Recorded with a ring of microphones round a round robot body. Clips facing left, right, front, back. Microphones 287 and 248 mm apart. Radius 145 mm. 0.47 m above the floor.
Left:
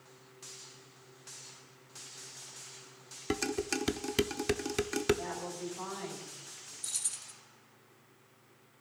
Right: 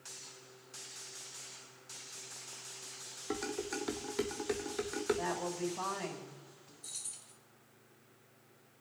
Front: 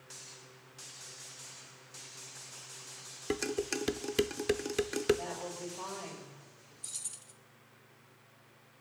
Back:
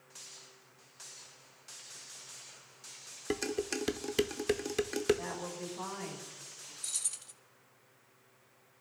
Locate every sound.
3.3 s dishes clattering: 90° left, 0.7 m
5.2 s a woman speaking: 110° right, 2.5 m
6.8 s keys jangling: 130° left, 0.8 m